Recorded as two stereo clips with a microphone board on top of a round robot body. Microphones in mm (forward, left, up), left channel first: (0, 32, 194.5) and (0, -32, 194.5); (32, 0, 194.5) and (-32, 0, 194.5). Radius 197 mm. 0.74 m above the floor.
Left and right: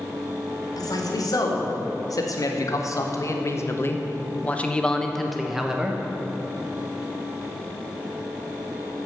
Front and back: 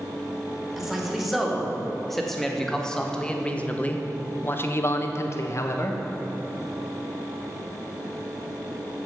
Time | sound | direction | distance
0.8 | a man speaking | 95° left | 2.5 m